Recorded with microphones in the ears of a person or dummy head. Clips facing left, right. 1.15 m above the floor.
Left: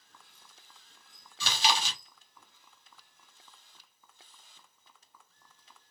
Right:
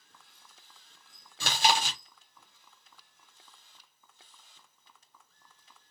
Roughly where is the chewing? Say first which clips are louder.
Right 3 dB; right.